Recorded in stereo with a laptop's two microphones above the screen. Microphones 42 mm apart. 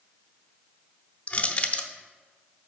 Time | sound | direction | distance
1.3 | crushing | 35° left (ahead or behind) | 0.7 m